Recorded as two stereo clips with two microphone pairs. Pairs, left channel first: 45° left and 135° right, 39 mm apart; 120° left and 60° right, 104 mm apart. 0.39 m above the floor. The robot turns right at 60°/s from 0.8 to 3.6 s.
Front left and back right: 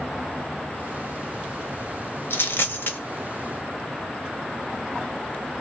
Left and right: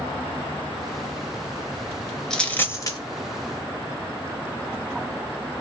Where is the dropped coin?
40° left, 0.8 m; by 3.0 s 80° left, 0.8 m.